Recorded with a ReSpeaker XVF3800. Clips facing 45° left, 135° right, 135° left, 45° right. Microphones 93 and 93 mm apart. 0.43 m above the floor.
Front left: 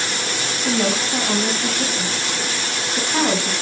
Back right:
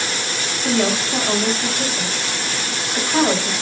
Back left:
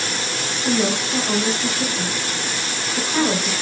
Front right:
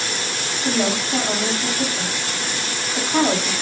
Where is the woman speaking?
90° right, 2.5 m.